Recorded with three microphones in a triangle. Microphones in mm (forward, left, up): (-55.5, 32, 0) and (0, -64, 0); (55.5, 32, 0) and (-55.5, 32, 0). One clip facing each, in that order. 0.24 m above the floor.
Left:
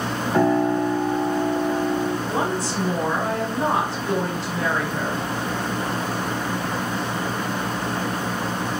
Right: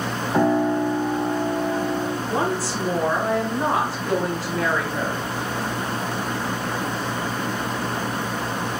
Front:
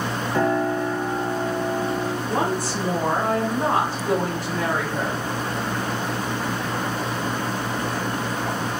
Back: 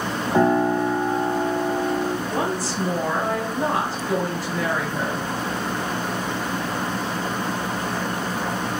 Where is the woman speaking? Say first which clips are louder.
Even, front 1 dB; 25° left, 2.0 m.